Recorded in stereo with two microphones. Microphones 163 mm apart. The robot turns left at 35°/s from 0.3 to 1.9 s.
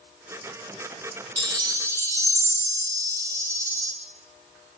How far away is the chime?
About 0.9 m.